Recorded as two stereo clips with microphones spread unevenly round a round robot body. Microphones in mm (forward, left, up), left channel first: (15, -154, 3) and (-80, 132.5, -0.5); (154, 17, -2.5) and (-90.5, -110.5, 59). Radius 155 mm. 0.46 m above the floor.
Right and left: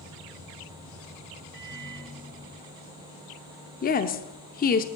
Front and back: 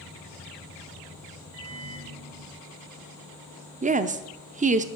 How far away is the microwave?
About 2.5 m.